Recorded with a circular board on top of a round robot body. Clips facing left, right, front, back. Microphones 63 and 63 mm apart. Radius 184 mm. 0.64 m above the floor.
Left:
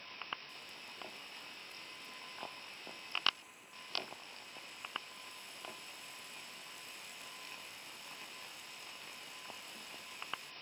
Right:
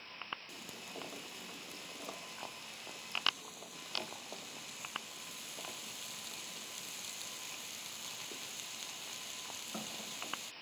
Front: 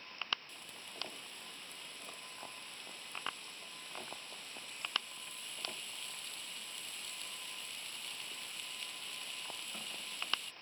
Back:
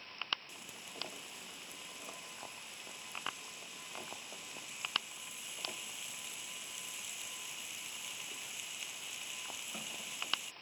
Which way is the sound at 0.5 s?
100° right.